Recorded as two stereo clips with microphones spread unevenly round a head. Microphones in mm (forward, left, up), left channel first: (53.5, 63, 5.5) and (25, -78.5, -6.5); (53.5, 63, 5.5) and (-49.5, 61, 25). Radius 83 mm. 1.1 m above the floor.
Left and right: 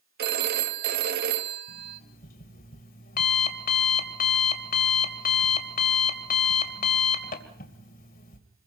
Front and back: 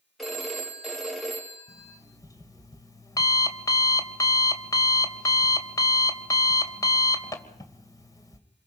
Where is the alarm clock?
60° left, 2.5 m.